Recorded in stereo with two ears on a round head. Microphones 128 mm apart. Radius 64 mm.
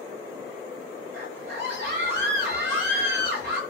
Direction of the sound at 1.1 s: 75° right (ahead or behind).